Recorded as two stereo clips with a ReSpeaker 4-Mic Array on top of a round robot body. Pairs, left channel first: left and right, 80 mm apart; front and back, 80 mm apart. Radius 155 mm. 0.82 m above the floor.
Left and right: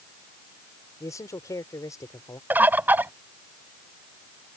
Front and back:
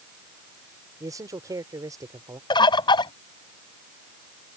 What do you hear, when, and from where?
1.0 s a man speaking: 135° left
2.5 s a bird: 20° right